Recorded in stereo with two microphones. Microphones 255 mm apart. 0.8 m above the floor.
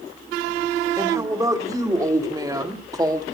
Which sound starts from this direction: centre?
A woman speaking, at 1.0 s.